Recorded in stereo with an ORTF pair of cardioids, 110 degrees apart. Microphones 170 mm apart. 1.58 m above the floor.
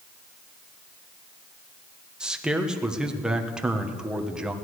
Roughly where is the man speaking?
Ahead.